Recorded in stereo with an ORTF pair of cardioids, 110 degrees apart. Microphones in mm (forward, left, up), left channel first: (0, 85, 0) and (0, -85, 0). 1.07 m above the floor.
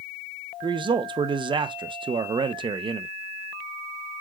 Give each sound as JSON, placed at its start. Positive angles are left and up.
{"t": 0.6, "sound": "a man speaking", "azimuth_deg": -30, "distance_m": 0.8}